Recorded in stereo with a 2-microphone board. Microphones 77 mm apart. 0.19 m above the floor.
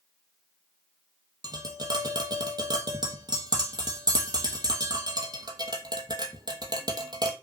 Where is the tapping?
60° right (ahead or behind), 0.9 m.